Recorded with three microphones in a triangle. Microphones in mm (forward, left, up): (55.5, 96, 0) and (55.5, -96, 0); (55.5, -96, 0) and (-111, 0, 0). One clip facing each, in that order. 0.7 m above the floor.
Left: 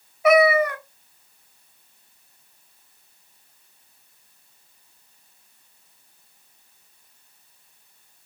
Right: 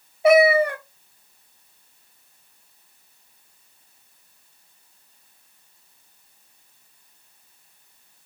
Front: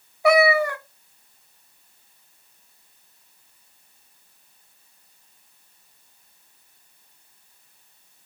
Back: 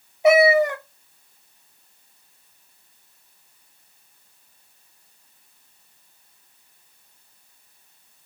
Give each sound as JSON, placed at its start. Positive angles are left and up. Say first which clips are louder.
{"t": 0.2, "sound": "a cat meowing", "louder": "right 1 dB, back 3 dB", "azimuth_deg": -145, "distance_m": 0.6}